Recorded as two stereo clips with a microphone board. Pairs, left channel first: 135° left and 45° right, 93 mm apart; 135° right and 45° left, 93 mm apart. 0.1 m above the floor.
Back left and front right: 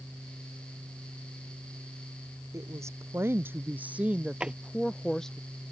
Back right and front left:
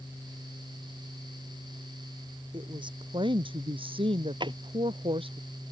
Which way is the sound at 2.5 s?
10° left.